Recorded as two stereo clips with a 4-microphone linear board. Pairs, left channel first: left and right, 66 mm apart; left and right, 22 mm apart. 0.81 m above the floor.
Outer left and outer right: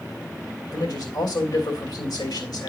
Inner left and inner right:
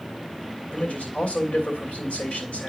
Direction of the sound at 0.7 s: 80° left.